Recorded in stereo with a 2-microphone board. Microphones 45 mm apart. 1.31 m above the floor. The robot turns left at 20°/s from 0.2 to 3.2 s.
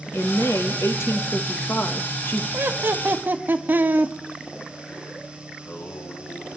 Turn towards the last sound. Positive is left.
turn(degrees=80)